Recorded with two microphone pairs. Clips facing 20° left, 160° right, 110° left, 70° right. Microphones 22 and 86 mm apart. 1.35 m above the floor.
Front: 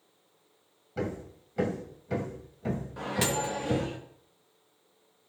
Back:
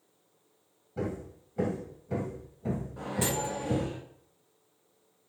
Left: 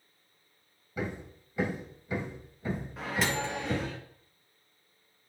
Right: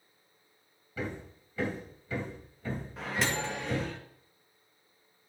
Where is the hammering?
40° left, 2.5 m.